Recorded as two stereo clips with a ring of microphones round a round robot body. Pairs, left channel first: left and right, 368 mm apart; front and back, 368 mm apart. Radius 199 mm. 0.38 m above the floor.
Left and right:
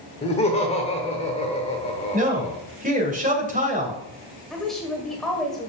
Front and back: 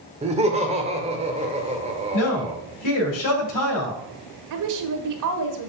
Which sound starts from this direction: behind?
A woman speaking, at 4.5 s.